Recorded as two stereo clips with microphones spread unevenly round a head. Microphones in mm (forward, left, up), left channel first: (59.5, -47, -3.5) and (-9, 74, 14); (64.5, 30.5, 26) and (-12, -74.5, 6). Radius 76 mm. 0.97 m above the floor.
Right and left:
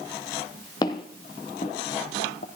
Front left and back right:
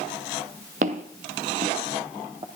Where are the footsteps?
125° right, 1.4 m; by 2.5 s 70° right, 1.7 m.